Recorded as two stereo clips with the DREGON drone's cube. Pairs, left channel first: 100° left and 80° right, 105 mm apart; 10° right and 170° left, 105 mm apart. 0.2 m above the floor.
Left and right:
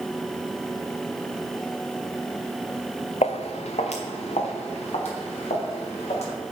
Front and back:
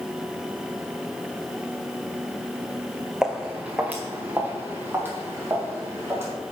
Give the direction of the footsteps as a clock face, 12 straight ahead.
9 o'clock.